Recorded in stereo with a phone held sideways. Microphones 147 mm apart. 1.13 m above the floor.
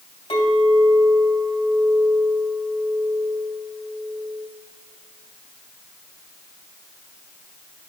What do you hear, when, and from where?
0.3 s a clink: 45° left (ahead or behind), 3 m